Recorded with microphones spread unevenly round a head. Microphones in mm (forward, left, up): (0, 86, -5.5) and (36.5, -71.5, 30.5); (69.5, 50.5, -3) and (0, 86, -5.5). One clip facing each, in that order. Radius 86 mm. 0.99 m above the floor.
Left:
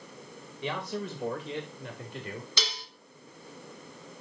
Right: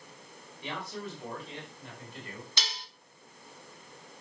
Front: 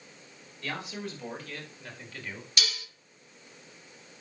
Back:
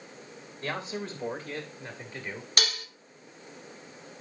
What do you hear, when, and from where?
0.6 s a man speaking: 100° left, 5 m; by 2.5 s 85° left, 4.5 m
2.6 s dishes clattering: 115° left, 1.5 m